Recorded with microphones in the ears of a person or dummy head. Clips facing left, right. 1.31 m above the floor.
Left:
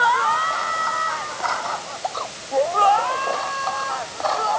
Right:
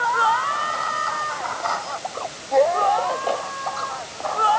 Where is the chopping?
No chopping in this recording.